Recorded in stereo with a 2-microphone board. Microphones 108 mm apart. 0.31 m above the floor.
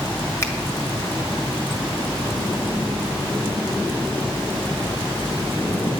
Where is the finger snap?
25° left (ahead or behind), 1.4 m.